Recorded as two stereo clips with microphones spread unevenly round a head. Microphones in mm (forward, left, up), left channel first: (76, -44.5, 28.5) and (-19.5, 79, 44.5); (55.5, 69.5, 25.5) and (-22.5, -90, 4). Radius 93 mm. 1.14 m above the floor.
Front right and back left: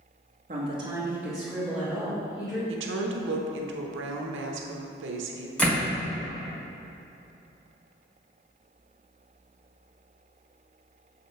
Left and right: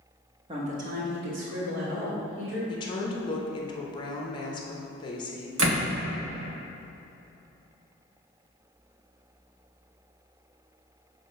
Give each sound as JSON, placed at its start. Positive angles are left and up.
{"t": 0.5, "sound": "a woman speaking", "azimuth_deg": 175, "distance_m": 1.1}
{"t": 2.7, "sound": "a woman speaking", "azimuth_deg": 130, "distance_m": 0.9}
{"t": 5.6, "sound": "a door slam", "azimuth_deg": -140, "distance_m": 1.7}